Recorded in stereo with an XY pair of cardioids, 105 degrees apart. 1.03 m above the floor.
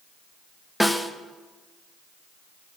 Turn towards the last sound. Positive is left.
turn(degrees=5)